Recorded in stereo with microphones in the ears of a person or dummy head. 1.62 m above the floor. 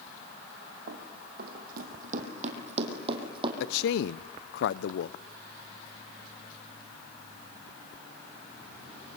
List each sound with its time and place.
0.9 s running footsteps: 55° right (ahead or behind), 3 m; by 3.5 s 30° right (ahead or behind), 3.5 m
3.6 s a man speaking: 65° left (ahead or behind), 0.6 m